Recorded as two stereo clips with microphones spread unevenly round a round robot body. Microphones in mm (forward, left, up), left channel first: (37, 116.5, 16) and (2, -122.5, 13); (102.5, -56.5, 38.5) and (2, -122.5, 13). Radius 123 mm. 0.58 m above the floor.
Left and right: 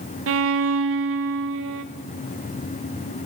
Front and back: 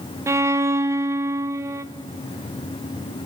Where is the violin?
75° right, 0.7 m.